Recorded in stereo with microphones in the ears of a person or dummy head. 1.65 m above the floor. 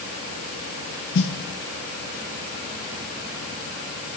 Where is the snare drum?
65° left (ahead or behind), 2 m.